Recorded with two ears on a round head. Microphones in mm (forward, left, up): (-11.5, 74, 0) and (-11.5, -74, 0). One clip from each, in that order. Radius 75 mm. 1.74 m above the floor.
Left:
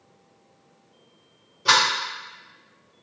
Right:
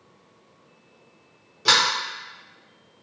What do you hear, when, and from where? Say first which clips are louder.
1.6 s a sliding door: even; 50° right (ahead or behind), 1.2 m